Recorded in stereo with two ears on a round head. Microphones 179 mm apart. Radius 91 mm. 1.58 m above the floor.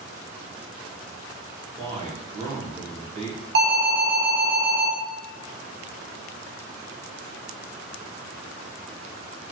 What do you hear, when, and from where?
1.8 s a man speaking: 35° right (ahead or behind), 2 m
3.5 s an alarm: 60° right (ahead or behind), 1.8 m